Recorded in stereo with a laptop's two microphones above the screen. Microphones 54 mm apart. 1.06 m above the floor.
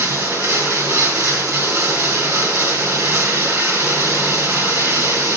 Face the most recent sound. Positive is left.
turn(degrees=-75)  # may be behind; listen again after turning